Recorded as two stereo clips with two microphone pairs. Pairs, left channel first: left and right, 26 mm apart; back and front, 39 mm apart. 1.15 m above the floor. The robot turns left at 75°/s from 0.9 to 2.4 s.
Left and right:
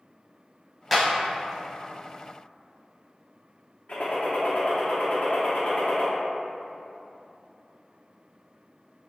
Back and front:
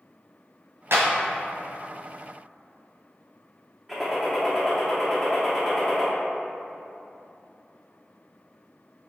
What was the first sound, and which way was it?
A clap, straight ahead.